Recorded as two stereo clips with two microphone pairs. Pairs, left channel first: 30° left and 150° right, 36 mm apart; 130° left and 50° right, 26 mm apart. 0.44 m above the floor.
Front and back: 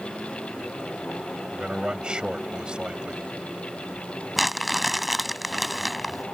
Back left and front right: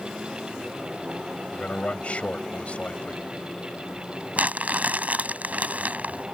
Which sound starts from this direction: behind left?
A man speaking, at 1.5 s.